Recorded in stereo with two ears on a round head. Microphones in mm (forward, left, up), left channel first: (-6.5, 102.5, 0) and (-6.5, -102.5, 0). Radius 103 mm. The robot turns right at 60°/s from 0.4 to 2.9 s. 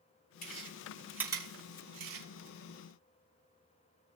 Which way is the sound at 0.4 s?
40° left (ahead or behind).